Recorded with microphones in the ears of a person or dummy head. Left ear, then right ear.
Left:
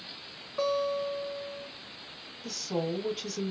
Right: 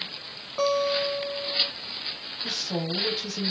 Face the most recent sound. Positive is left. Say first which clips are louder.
# right 3 dB
turn(degrees=-5)  # may be behind; listen again after turning